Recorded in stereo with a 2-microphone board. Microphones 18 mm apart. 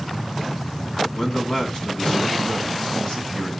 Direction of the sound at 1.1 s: 30° left (ahead or behind).